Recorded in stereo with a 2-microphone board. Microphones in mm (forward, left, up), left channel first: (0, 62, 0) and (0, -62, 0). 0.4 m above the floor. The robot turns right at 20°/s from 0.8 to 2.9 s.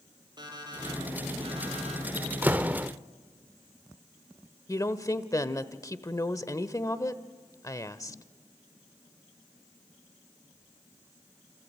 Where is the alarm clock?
35° right (ahead or behind), 5.5 m; by 2.0 s 60° right (ahead or behind), 5.5 m.